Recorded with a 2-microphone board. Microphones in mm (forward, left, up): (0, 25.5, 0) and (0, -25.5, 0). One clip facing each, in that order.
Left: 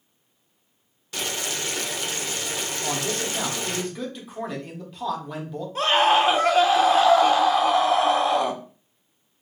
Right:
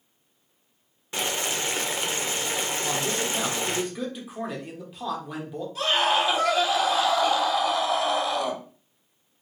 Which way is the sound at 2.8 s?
5° right (ahead or behind).